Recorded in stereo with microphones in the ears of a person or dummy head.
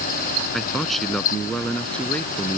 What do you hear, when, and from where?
0.5 s a man speaking: 5° left (ahead or behind); by 2.6 s 15° left (ahead or behind)